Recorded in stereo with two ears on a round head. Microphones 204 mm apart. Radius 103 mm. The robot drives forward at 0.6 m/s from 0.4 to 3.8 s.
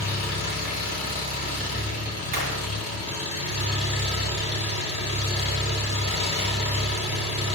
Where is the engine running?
45° left (ahead or behind), 3.5 m; by 7.5 s 30° left (ahead or behind), 5 m.